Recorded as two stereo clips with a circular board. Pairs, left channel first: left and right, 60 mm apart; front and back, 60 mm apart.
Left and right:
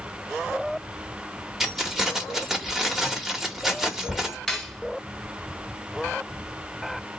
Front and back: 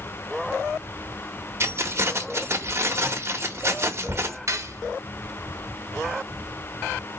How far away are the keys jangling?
About 0.9 m.